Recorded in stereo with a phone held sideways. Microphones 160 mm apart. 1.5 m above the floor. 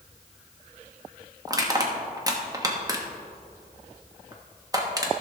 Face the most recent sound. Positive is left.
turn(degrees=-25)  # may be behind; listen again after turning